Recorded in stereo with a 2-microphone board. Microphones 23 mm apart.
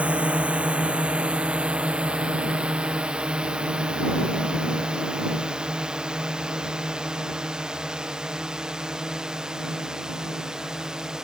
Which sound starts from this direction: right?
A drone, at 0.0 s.